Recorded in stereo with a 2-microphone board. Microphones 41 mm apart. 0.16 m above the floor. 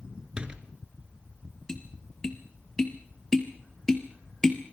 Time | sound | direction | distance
0.4 | a door slam | 20° right (ahead or behind) | 1.9 m
1.7 | tapping | 15° left (ahead or behind) | 2.5 m